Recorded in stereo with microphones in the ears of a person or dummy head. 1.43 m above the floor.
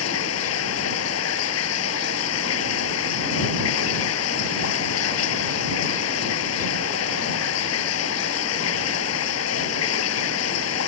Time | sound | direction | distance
0.0 | running water | 65° left (ahead or behind) | ?